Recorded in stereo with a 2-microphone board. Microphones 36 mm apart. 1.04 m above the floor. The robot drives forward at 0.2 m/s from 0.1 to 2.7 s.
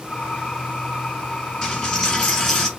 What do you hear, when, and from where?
1.6 s a dropped coin: 15° left (ahead or behind), 1.1 m